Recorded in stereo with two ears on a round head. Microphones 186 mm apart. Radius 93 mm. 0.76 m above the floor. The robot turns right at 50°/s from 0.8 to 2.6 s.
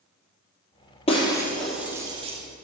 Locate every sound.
1.1 s breaking glass: 30° left (ahead or behind), 2.5 m; by 2.4 s 35° right (ahead or behind), 2.5 m